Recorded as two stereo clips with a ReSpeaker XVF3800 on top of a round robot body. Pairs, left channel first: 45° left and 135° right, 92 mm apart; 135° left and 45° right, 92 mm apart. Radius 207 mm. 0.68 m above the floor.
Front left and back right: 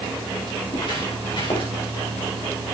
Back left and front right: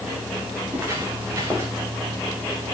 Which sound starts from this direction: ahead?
Footsteps, at 0.7 s.